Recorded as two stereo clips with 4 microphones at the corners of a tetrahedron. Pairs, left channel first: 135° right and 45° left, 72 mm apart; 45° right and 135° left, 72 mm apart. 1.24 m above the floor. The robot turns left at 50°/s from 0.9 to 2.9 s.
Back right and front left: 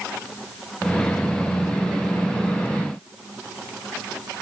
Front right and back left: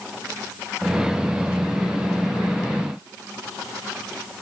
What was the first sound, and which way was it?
Only background noise.